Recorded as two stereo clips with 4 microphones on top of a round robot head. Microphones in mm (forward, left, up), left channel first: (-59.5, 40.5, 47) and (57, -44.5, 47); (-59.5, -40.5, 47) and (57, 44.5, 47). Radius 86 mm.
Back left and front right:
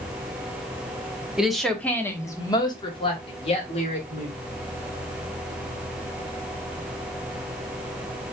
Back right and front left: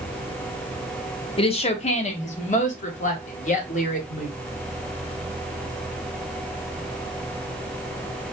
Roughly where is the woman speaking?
Behind right.